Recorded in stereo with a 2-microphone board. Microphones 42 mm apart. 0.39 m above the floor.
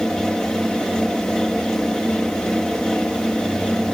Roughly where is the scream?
I don't hear a scream.